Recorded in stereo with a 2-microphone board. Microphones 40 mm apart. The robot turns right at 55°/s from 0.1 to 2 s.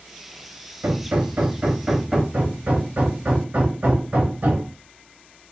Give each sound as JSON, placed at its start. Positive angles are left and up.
{"t": 0.8, "sound": "hammering", "azimuth_deg": -80, "distance_m": 0.7}
{"t": 2.3, "sound": "hammering", "side_deg": -45, "distance_m": 1.1}